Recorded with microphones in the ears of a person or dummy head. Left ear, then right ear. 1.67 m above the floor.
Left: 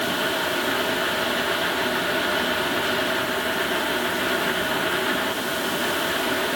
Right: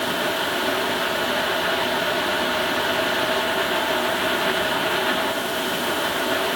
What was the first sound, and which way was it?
Only background noise.